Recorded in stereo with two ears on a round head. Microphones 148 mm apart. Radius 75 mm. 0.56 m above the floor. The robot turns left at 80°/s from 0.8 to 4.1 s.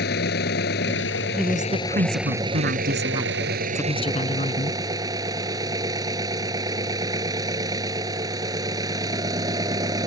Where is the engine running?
110° left; by 10.1 s 155° right.